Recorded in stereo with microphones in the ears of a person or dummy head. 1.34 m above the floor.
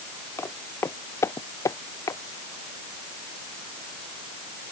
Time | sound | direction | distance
0.4 | footsteps | 20° left (ahead or behind) | ?